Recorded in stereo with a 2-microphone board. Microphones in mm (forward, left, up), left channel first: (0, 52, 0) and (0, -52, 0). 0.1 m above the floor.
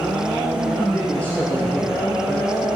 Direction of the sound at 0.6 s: 10° left (ahead or behind).